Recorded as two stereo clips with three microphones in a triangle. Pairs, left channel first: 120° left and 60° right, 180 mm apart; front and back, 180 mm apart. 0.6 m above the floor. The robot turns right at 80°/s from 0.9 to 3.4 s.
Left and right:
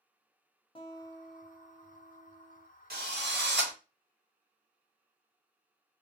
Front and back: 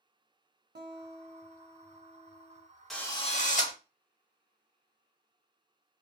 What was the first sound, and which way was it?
A guitar, 175° left.